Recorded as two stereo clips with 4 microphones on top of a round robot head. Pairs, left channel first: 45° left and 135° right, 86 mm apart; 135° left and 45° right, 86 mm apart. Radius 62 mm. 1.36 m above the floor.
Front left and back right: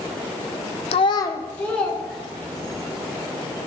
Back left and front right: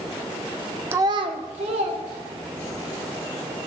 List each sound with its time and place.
0.9 s a child speaking: 25° left, 0.5 m; by 2.8 s 50° right, 2.5 m